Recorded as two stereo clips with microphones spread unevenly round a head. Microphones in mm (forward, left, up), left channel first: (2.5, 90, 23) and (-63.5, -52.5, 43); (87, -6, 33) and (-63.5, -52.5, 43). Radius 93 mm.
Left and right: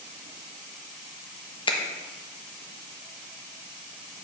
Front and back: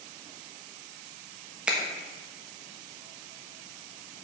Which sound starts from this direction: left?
A finger snap, at 1.7 s.